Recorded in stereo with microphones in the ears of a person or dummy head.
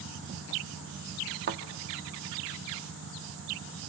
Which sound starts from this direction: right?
A thud, at 1.5 s.